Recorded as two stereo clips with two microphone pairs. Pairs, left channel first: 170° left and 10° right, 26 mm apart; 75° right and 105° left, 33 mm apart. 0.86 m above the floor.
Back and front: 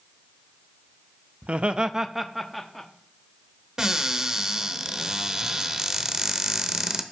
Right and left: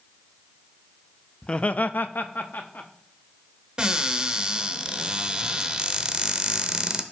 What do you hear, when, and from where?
1.4 s laughter: 10° right, 0.6 m; by 2.9 s 105° right, 1.4 m
3.8 s a cupboard door: 50° left, 0.7 m